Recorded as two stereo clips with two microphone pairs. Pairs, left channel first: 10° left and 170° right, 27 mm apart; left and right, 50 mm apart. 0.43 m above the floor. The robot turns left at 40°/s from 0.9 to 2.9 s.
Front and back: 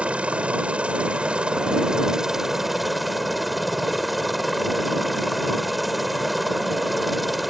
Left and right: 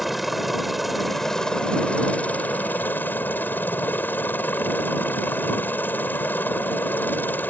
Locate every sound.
0.0 s a helicopter: straight behind; by 7.5 s 100° left